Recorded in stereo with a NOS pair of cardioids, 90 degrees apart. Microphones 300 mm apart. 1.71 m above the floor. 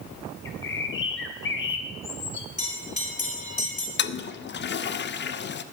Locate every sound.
0.5 s a bird: 40° left, 1.9 m
2.6 s a bell: 25° left, 4 m
4.0 s a toilet flushing: 35° left, 0.8 m